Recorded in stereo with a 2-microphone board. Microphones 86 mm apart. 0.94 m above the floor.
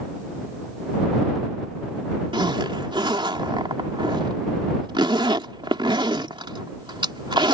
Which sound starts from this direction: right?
A zipper, at 2.3 s.